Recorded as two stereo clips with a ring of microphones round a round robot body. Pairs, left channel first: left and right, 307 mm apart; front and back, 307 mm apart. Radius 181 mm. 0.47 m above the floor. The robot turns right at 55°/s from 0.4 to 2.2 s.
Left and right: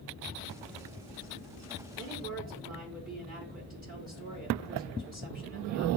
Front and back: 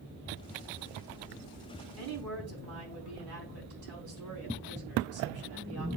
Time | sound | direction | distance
2.0 | a woman speaking | 165° right | 4 m